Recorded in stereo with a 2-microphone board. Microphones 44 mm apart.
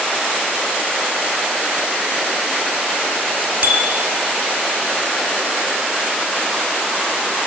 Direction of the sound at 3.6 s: 55° right (ahead or behind).